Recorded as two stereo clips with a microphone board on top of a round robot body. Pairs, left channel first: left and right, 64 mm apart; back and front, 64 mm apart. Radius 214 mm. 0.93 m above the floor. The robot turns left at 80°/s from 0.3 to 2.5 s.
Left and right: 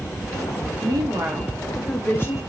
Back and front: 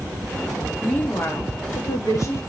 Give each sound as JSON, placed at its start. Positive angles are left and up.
{"t": 0.8, "sound": "a woman speaking", "azimuth_deg": -105, "distance_m": 1.9}